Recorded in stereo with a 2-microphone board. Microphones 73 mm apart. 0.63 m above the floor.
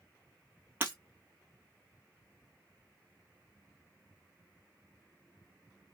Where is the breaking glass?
25° right (ahead or behind), 1.2 m.